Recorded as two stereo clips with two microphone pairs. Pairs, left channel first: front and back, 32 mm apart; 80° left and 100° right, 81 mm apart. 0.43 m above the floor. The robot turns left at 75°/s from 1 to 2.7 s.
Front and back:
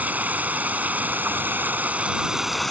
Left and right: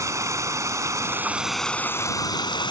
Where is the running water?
145° right; by 2.7 s 85° left.